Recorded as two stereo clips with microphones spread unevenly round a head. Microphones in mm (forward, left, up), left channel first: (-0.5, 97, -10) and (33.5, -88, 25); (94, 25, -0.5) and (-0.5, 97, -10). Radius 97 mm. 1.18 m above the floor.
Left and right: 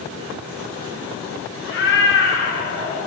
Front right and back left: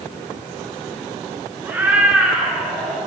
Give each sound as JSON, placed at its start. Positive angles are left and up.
{"t": 1.6, "sound": "a cat meowing", "azimuth_deg": 70, "distance_m": 4.5}